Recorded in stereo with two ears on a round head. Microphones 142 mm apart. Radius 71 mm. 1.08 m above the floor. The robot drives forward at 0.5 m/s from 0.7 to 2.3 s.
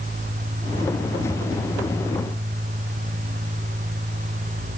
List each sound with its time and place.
Only background noise.